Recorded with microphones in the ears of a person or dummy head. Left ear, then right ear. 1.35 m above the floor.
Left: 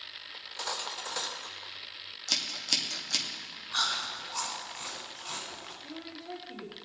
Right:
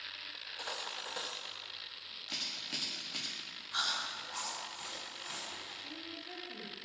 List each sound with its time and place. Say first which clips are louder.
0.3 s cutlery clinking: left 8 dB; 20° left (ahead or behind), 0.8 m
2.3 s scissors: left 9 dB; 75° left (ahead or behind), 2.0 m
3.7 s chewing: left 5 dB; 5° left (ahead or behind), 3.5 m
5.8 s a woman speaking: left 2 dB; 25° left (ahead or behind), 2.5 m